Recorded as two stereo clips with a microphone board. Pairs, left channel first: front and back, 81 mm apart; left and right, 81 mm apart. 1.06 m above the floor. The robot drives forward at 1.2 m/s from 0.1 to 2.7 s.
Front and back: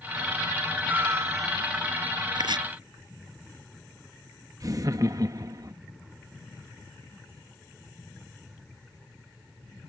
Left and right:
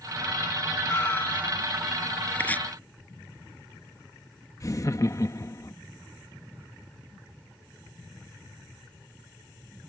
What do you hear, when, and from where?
0.9 s a cat meowing: 125° left; by 1.8 s 155° left
2.4 s chopping: 160° left
4.6 s laughter: 135° left